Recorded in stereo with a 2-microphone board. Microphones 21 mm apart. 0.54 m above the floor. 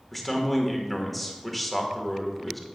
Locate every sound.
0.1 s a man speaking: 5° left (ahead or behind), 1.4 m